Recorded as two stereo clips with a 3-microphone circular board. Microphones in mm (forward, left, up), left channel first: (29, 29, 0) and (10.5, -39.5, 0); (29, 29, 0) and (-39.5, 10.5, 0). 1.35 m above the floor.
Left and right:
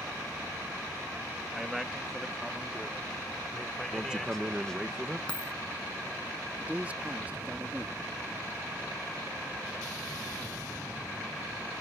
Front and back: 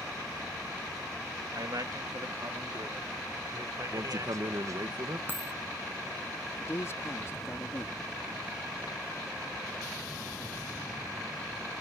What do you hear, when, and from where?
1.5 s a man speaking: 175° left; by 4.9 s 155° left
3.9 s a man speaking: straight behind
5.3 s a dropped coin: 140° left
6.6 s a man speaking: 35° right